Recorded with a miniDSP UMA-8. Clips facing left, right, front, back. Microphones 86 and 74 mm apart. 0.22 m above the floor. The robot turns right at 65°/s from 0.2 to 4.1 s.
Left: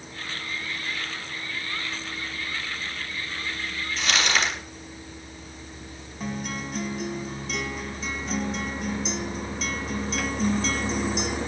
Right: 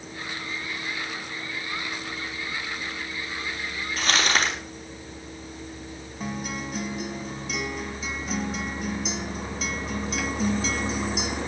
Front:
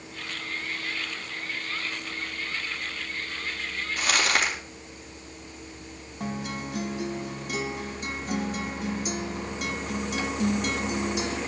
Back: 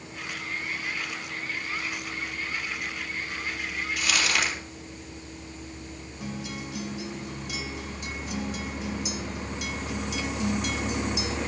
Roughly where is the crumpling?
Ahead right.